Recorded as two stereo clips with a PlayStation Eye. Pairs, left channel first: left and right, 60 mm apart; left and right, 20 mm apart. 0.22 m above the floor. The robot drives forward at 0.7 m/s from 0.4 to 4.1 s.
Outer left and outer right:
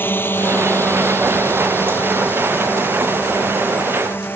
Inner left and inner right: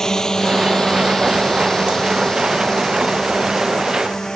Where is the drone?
30° left (ahead or behind).